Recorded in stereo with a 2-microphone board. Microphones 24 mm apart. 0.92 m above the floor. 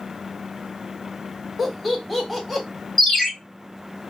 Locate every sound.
1.6 s laughter: 5° right (ahead or behind), 1.2 m
3.0 s a ringtone: 5° left (ahead or behind), 1.0 m